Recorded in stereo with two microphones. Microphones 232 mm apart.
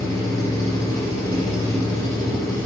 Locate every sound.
0.0 s an engine running: 15° left (ahead or behind), 6.5 m